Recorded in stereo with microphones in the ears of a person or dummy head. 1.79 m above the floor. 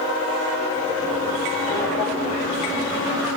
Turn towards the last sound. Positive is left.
turn(degrees=10)  # may be behind; listen again after turning